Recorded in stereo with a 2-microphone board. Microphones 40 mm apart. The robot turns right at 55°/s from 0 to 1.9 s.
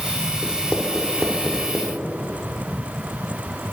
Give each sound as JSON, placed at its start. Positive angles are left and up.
{"t": 0.4, "sound": "writing", "side_deg": 55, "distance_m": 1.0}